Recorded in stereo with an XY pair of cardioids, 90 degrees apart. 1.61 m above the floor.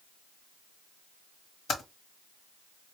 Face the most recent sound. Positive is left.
turn(degrees=70)